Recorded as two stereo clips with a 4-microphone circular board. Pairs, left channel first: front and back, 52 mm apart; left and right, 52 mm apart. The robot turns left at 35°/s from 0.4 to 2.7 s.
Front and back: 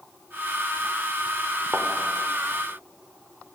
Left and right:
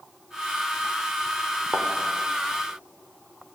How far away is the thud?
About 2.5 m.